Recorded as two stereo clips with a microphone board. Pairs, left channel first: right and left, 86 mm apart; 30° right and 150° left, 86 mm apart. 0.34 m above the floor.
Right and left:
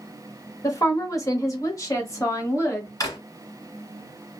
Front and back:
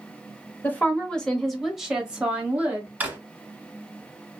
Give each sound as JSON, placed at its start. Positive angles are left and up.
{"t": 0.6, "sound": "a woman speaking", "azimuth_deg": -80, "distance_m": 1.0}
{"t": 3.0, "sound": "a drawer", "azimuth_deg": -140, "distance_m": 1.4}